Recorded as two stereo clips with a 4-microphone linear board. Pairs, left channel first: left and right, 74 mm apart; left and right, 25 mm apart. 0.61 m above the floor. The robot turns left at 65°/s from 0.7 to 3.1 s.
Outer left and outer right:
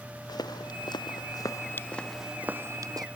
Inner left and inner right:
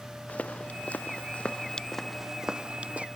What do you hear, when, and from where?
0.3 s footsteps: 70° left (ahead or behind); by 3.1 s 65° right (ahead or behind)